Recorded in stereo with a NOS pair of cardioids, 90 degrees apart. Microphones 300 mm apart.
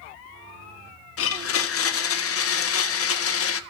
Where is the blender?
50° left, 1.4 m.